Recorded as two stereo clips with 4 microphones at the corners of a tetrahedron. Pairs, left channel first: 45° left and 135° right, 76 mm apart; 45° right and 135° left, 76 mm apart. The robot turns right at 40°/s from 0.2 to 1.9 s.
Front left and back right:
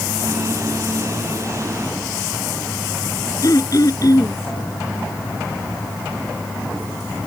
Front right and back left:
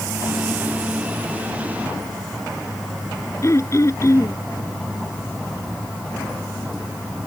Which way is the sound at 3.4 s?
5° left.